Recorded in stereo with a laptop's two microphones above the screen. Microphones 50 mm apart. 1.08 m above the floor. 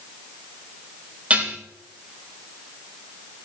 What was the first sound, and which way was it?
Dishes clattering, 25° right (ahead or behind).